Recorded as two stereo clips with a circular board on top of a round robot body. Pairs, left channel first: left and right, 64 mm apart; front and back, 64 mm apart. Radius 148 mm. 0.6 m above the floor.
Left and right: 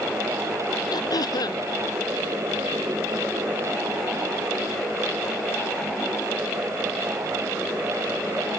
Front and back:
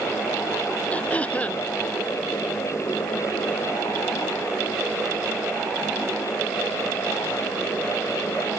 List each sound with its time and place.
0.9 s throat clearing: 70° left